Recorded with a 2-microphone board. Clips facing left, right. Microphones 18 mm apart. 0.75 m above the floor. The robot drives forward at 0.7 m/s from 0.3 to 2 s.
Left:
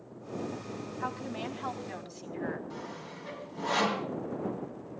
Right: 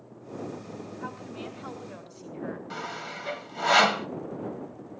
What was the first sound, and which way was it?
A woman speaking, 85° left.